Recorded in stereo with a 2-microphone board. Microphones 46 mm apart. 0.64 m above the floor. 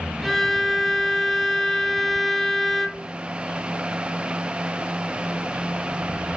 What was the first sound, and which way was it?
A violin, centre (ahead or behind).